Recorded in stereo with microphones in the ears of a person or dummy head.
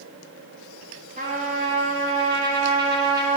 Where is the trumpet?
40° right (ahead or behind), 1.5 m.